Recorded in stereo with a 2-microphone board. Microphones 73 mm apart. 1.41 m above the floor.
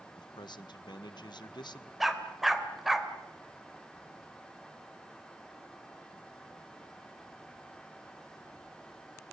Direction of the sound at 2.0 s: 5° right (ahead or behind).